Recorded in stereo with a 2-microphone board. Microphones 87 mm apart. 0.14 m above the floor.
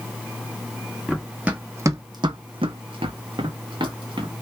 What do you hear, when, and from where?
1.1 s running footsteps: 5° right (ahead or behind), 0.8 m; by 4.3 s 55° right (ahead or behind), 1.3 m